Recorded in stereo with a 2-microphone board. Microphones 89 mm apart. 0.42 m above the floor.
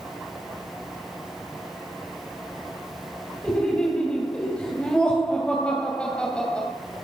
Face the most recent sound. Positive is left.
turn(degrees=10)  # may be behind; listen again after turning